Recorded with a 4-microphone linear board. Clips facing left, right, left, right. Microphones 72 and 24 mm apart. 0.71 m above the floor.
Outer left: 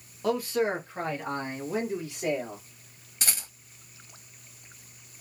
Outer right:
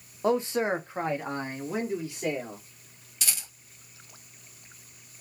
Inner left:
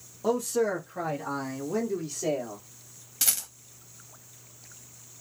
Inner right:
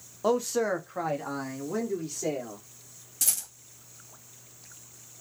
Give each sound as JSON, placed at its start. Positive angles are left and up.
{"t": 0.2, "sound": "a man speaking", "side_deg": -25, "distance_m": 0.5}
{"t": 3.2, "sound": "a rattle", "side_deg": 40, "distance_m": 0.9}